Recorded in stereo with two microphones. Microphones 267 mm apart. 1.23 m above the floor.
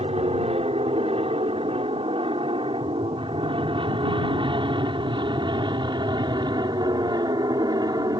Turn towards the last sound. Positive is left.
turn(degrees=-15)  # may be behind; listen again after turning